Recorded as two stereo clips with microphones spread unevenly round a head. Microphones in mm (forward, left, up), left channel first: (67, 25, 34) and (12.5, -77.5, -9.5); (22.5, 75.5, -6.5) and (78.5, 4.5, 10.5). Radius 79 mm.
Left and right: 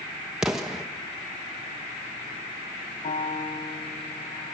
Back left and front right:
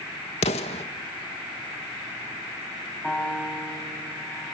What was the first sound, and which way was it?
An explosion, 150° left.